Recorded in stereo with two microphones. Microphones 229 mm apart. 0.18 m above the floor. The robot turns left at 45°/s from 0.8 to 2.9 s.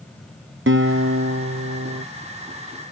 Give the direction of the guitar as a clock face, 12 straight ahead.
2 o'clock.